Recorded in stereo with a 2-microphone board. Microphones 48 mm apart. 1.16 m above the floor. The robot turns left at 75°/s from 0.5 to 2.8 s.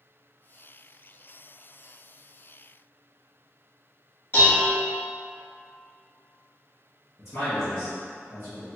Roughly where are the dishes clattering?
Left.